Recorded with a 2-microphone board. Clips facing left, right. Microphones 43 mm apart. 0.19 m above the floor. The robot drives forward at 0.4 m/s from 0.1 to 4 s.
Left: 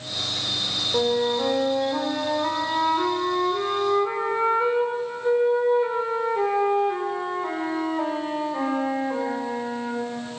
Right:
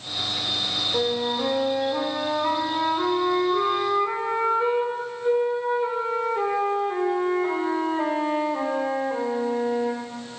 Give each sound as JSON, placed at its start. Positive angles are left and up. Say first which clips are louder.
{"t": 0.9, "sound": "a flute", "louder": "left 4 dB", "side_deg": 5, "distance_m": 0.9}